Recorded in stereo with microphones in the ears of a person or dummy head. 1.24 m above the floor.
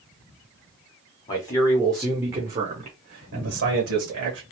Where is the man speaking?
20° left (ahead or behind), 0.9 m; by 4.4 s 70° right (ahead or behind), 1.2 m.